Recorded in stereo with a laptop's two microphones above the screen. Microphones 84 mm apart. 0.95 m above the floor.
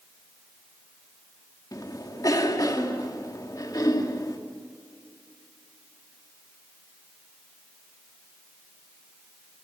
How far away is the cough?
About 2.5 m.